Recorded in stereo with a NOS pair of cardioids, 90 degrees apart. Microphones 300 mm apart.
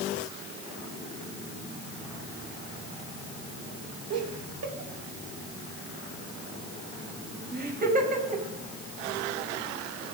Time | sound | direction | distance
4.1 | laughter | 60° right | 4 m